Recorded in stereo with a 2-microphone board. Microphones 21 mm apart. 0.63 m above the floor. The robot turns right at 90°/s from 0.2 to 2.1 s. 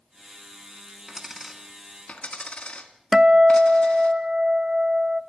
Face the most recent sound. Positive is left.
turn(degrees=-25)  # may be behind; listen again after turning